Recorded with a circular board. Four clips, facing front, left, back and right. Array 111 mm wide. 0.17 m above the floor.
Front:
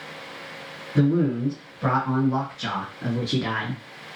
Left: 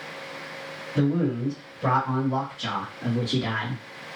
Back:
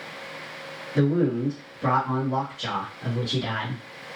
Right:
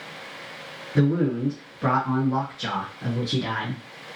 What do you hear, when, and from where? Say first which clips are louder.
0.9 s a man speaking: right 2 dB, front 1 dB; 75° right, 1.9 m; by 3.8 s 5° right, 1.9 m